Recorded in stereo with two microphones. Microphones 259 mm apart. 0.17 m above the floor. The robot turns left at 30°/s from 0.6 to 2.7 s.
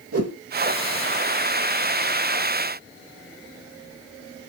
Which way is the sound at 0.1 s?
65° right (ahead or behind).